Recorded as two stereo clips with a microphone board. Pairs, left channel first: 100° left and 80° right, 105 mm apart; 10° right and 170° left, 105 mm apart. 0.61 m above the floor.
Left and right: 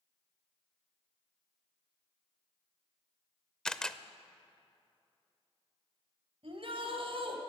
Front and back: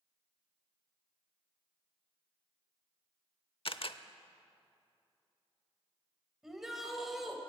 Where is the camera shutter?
15° left, 0.8 m.